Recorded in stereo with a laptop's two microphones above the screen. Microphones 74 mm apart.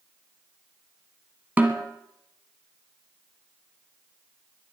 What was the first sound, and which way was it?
A snare drum, 25° right (ahead or behind).